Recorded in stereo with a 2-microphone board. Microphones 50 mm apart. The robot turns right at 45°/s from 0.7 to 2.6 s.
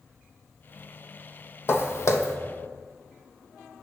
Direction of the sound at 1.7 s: 55° left (ahead or behind).